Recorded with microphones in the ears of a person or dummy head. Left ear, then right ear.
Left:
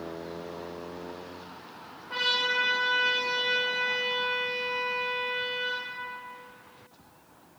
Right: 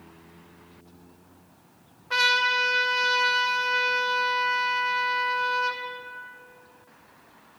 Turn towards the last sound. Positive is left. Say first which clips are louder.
# right 5 dB
turn(degrees=-65)  # may be behind; listen again after turning